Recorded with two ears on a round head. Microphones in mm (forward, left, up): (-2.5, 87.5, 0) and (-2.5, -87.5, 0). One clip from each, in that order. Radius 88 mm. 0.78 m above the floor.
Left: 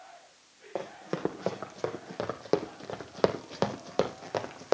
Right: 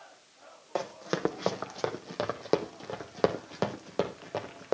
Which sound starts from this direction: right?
Running footsteps, at 0.8 s.